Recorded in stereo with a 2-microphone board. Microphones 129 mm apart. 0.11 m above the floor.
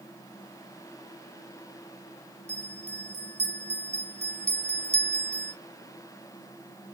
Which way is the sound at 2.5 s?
50° right (ahead or behind).